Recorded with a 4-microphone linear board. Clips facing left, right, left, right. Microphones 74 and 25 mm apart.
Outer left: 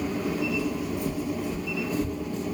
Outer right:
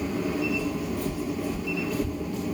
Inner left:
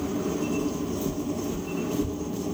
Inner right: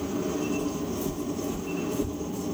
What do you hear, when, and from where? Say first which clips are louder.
0.6 s footsteps: even, inner left 1 dB; 10° left (ahead or behind), 1.6 m; by 2.5 s 30° left (ahead or behind), 2.5 m